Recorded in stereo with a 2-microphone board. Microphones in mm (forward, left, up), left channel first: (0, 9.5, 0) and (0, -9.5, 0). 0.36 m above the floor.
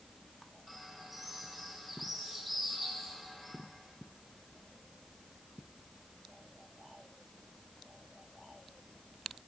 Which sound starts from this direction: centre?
A bird, at 0.7 s.